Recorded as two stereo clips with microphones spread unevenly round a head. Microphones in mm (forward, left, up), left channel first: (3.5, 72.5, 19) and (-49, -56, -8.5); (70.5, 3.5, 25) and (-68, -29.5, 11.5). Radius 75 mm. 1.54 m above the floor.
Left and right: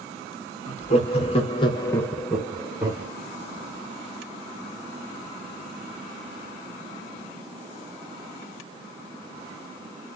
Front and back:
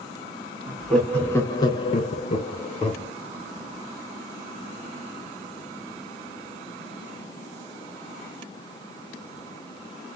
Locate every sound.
0.7 s laughter: 100° left, 0.9 m; by 3.1 s 35° right, 0.9 m